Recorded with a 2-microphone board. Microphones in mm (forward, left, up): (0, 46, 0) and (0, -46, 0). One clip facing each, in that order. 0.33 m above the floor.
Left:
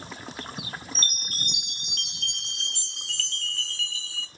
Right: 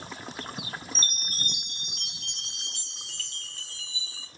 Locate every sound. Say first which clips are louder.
0.9 s a chime: left 1 dB; 75° left (ahead or behind), 0.7 m